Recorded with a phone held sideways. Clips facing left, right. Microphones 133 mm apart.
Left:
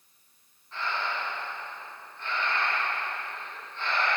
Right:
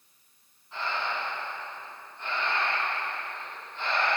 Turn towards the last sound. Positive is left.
turn(degrees=-15)  # may be behind; listen again after turning